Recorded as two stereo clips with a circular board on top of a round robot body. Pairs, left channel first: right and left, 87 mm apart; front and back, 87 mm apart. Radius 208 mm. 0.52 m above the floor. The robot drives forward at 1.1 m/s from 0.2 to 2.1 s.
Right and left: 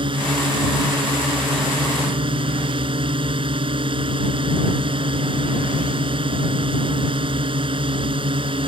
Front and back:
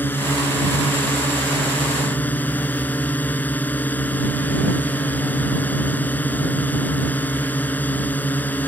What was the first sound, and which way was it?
A drone, 70° left.